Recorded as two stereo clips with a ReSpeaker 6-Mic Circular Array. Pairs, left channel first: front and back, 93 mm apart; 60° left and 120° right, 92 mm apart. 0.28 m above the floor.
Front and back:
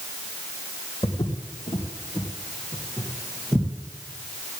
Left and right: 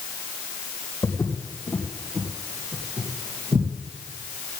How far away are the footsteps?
About 2.5 m.